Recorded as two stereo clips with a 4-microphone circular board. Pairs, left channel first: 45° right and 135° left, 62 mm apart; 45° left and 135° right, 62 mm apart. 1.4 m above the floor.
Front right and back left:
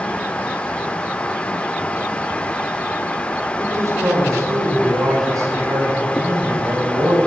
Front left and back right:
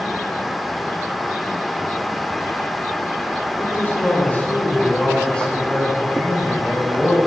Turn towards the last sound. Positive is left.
turn(degrees=130)